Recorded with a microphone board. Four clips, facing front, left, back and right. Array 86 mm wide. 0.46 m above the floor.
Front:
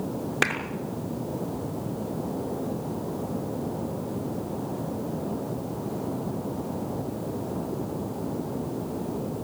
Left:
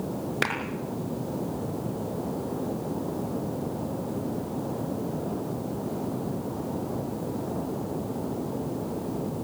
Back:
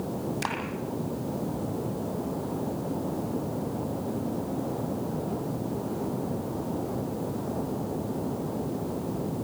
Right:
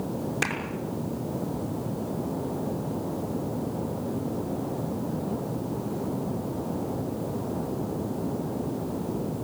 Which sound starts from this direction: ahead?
A clap, at 0.4 s.